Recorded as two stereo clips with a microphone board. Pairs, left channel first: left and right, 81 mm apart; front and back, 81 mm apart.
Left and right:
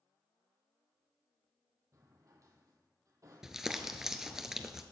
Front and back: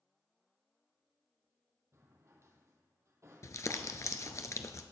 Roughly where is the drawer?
Behind right.